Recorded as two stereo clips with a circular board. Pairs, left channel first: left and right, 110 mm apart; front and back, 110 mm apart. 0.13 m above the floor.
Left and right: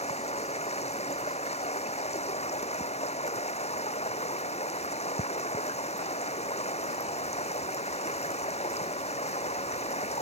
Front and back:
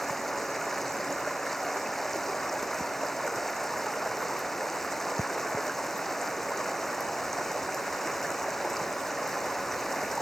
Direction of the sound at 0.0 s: 90° left.